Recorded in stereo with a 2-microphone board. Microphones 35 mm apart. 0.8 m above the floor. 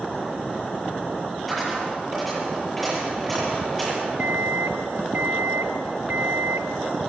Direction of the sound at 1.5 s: Centre (ahead or behind).